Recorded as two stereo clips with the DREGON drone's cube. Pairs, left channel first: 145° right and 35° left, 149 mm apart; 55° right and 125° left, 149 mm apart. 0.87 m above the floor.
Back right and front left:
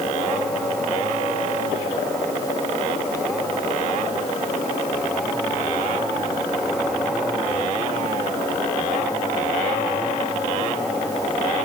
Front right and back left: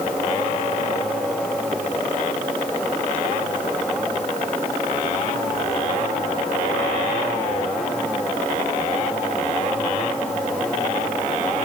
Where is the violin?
No violin in this recording.